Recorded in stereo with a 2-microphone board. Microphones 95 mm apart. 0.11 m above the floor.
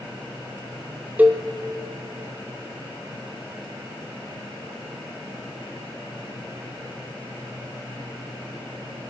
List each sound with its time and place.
1.2 s a cowbell: 15° right (ahead or behind), 0.9 m